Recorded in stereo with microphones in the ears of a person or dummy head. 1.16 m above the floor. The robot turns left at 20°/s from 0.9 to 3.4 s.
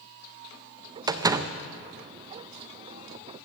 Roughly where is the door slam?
Right.